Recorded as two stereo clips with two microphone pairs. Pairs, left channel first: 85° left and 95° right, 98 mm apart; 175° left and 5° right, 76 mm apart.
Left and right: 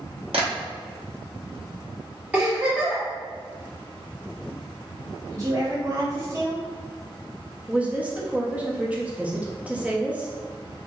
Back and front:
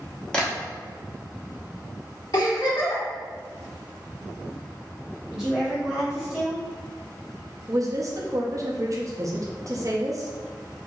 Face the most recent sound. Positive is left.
turn(degrees=-25)